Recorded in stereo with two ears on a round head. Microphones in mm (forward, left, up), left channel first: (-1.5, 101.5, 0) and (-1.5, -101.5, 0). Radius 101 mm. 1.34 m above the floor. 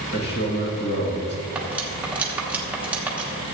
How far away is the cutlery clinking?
About 1.4 m.